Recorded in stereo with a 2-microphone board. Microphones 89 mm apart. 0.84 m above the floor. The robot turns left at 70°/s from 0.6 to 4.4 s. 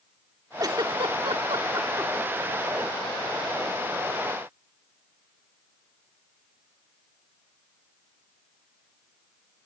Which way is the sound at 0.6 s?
45° right (ahead or behind).